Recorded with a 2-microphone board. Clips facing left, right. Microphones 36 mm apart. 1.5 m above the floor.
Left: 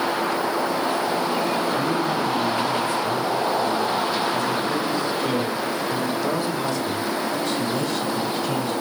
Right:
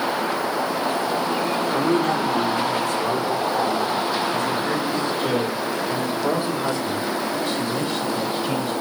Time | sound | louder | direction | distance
1.7 | a man speaking | right 2 dB | 80° right | 4.5 m